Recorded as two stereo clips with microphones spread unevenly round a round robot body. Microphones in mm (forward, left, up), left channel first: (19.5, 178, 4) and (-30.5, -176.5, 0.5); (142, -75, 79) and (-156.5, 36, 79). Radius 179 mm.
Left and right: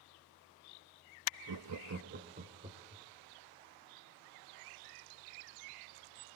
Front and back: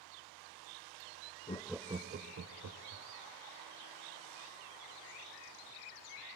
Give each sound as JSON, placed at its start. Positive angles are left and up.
{"t": 1.5, "sound": "laughter", "azimuth_deg": -85, "distance_m": 0.7}